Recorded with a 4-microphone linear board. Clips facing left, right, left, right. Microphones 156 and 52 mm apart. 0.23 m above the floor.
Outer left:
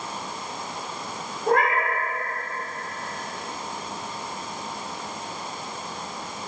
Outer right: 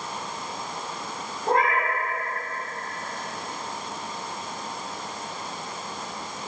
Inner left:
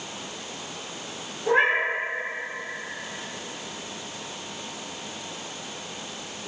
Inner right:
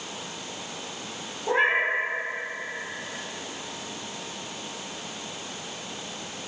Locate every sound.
1.5 s a cat meowing: 75° left (ahead or behind), 0.8 m